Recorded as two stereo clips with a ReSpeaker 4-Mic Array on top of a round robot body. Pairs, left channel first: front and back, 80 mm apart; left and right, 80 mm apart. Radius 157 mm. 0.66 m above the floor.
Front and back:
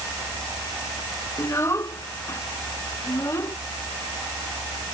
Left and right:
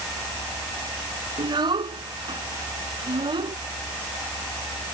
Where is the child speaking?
60° right.